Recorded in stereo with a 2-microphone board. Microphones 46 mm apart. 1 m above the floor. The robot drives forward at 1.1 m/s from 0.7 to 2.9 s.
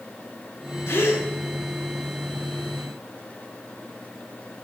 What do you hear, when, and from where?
0.9 s a gasp: 60° left (ahead or behind), 1.5 m; by 1.3 s 80° left, 1.3 m